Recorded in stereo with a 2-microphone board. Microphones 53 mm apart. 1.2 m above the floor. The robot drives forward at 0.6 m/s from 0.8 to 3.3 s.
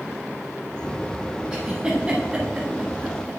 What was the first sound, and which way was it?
A giggle, 15° right (ahead or behind).